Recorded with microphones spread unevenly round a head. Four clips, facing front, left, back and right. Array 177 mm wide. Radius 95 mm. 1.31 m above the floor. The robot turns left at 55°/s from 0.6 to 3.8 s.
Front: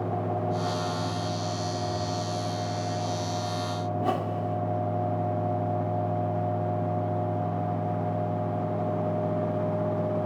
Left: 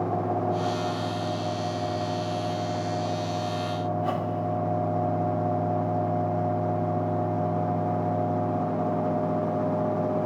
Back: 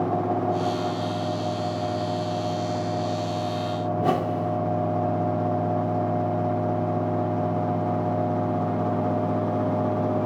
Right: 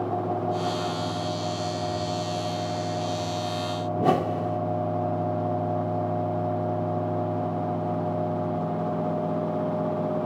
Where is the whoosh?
115° right, 1.6 m.